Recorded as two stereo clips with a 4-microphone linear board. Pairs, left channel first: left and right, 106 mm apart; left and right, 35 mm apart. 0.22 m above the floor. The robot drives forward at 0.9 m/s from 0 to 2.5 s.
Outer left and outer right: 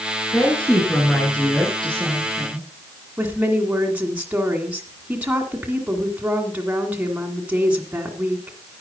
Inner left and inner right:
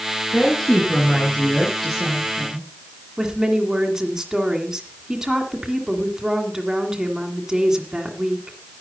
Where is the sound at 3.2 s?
15° right (ahead or behind), 2.0 m.